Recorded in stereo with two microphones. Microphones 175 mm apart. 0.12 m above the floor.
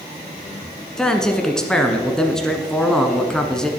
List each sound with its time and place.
1.0 s a man speaking: 5° left (ahead or behind), 1.2 m